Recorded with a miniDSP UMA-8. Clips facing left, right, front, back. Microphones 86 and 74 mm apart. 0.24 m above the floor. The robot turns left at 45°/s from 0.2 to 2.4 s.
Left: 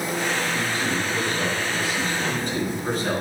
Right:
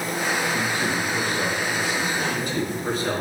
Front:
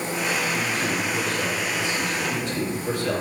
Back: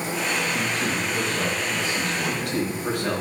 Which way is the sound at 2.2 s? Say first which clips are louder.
Even, back 1 dB; 165° right.